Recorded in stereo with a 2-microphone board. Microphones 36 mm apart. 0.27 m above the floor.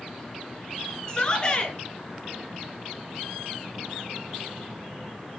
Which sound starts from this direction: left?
A shout, at 1.1 s.